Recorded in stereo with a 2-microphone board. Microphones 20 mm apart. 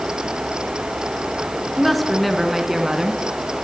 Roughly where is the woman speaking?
Centre.